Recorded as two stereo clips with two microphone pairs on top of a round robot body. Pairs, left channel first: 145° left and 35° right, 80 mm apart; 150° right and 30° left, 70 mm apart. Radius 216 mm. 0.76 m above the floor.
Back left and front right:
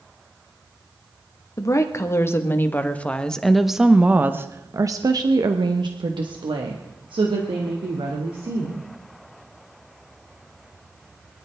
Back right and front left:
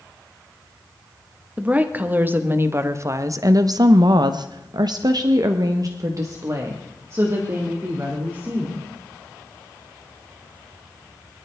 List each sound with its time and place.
1.6 s a woman speaking: 100° left, 1.7 m; by 8.8 s 30° right, 2.5 m